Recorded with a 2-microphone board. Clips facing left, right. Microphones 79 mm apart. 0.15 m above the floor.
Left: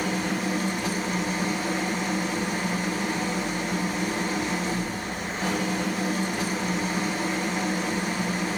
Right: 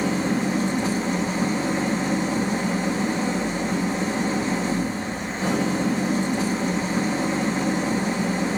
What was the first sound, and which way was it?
An engine running, 30° right (ahead or behind).